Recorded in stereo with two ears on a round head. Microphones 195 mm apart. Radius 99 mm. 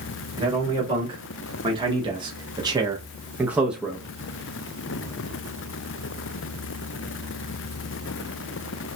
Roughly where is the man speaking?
Right.